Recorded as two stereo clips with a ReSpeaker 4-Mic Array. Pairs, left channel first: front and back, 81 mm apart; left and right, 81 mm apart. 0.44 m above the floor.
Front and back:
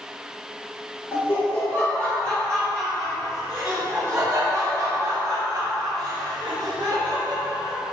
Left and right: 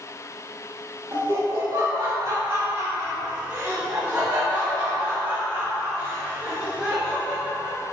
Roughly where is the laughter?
Ahead right.